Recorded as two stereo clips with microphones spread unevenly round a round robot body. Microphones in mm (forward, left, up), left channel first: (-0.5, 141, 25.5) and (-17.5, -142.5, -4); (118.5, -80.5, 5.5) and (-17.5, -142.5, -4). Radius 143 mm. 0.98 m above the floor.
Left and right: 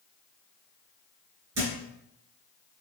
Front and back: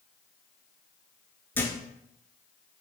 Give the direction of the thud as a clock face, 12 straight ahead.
2 o'clock.